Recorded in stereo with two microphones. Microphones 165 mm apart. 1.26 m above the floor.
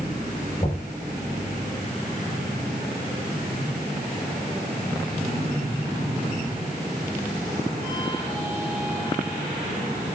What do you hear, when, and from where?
0.6 s knocking: 35° left (ahead or behind), 6 m